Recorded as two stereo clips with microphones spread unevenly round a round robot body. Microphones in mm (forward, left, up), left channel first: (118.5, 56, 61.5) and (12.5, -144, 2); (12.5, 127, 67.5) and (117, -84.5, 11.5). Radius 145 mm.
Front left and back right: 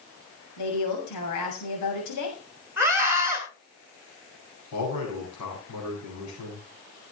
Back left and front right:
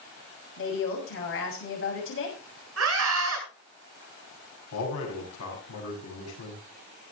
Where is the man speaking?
100° left, 8.5 m.